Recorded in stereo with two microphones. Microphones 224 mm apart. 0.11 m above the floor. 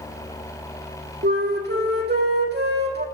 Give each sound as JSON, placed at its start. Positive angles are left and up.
{"t": 1.2, "sound": "a flute", "side_deg": -50, "distance_m": 1.1}